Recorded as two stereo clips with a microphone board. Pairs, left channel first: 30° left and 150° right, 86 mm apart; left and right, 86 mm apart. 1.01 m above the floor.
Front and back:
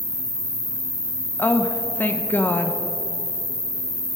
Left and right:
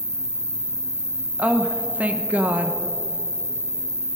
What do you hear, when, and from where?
0.0 s an insect: 170° left, 2.5 m
1.4 s a woman speaking: 25° right, 0.9 m